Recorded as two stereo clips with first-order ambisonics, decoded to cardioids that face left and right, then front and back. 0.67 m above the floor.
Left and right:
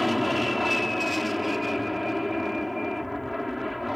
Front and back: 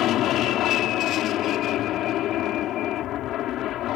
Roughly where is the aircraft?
Ahead.